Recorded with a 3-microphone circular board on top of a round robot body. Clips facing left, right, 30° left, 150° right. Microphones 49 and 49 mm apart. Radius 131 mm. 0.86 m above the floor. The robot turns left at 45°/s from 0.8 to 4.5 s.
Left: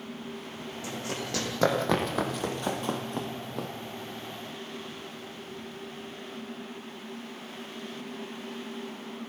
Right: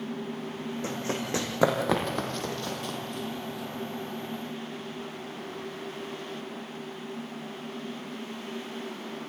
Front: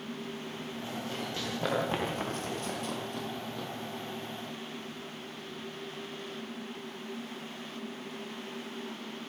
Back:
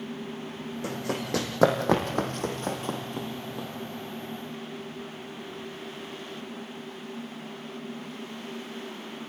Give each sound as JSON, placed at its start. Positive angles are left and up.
{"t": 0.8, "sound": "running footsteps", "azimuth_deg": -140, "distance_m": 4.0}